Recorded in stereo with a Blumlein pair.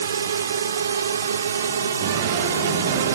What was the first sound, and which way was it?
A drone, 70° right.